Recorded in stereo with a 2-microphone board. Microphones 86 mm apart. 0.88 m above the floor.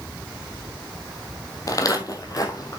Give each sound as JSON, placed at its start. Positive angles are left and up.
{"t": 1.7, "sound": "footsteps", "side_deg": 45, "distance_m": 1.7}